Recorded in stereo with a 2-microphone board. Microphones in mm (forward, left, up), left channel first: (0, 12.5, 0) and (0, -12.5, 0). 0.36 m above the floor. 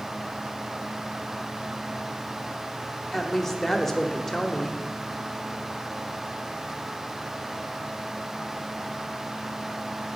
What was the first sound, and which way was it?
A woman speaking, 10° left (ahead or behind).